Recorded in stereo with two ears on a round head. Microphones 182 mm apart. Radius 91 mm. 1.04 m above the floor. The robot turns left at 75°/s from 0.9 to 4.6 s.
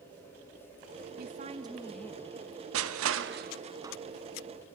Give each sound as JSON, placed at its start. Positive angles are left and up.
{"t": 1.2, "sound": "a woman speaking", "azimuth_deg": -120, "distance_m": 1.2}
{"t": 2.7, "sound": "crushing", "side_deg": -75, "distance_m": 1.0}